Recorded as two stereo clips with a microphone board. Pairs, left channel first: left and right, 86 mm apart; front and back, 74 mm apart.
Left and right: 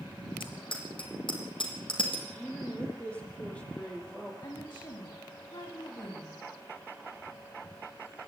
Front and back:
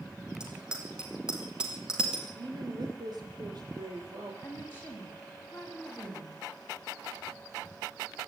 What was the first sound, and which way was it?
A bicycle bell, 100° left.